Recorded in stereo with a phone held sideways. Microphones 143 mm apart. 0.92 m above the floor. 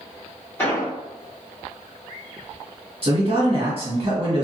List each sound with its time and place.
0.6 s an explosion: 15° left (ahead or behind), 1.2 m
3.0 s a man speaking: 45° right (ahead or behind), 1.1 m